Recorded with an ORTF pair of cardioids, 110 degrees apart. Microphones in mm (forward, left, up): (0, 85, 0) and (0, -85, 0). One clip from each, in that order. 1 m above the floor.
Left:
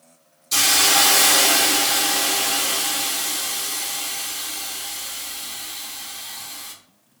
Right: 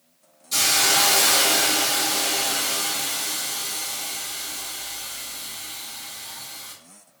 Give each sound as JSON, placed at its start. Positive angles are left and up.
{"t": 0.5, "sound": "a hiss", "azimuth_deg": 30, "distance_m": 0.8}